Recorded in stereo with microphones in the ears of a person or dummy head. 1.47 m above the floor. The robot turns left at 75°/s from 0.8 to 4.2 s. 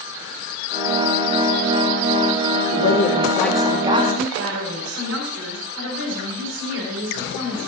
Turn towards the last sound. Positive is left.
turn(degrees=-70)  # may be behind; listen again after turning